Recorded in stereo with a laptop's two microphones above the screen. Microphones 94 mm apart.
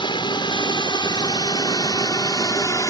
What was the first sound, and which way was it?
A drone, 60° left (ahead or behind).